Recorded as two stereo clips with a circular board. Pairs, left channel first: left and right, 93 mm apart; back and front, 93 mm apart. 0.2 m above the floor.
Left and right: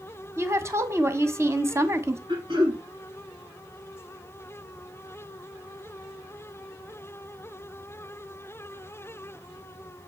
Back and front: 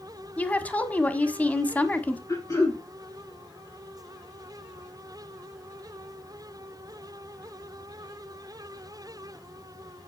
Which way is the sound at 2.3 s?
120° right.